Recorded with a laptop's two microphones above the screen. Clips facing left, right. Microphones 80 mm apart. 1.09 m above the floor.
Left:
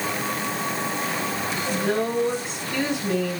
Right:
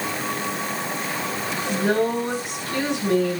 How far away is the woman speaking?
About 3 m.